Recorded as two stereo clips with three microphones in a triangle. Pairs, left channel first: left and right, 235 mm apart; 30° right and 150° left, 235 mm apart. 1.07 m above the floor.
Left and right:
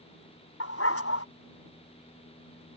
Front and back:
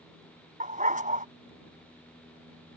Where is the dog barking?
95° left.